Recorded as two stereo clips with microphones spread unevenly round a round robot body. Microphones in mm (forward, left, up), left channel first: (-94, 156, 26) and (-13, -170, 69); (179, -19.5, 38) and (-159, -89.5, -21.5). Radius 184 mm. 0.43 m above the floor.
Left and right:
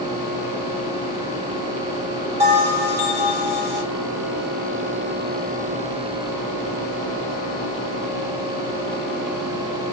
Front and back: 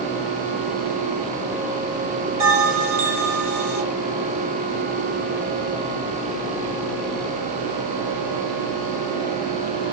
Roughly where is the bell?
Behind right.